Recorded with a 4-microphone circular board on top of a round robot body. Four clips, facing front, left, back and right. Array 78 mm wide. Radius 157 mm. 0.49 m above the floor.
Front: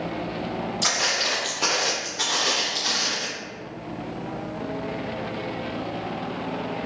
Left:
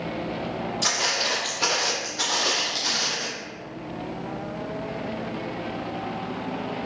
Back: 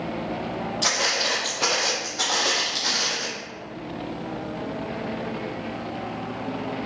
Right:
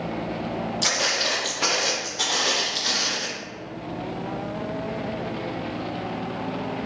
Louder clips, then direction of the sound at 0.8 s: Right 1 dB, back 2 dB; 170° right.